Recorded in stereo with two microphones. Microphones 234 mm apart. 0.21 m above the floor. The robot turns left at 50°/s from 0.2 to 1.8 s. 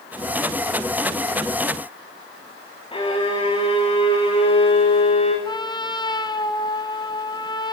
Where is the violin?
20° left (ahead or behind), 7 m.